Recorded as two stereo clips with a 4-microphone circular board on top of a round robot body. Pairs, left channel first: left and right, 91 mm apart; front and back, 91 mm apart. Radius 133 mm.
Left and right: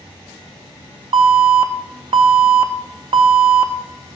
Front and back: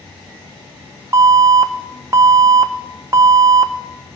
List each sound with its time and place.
1.1 s an alarm: 120° right, 0.8 m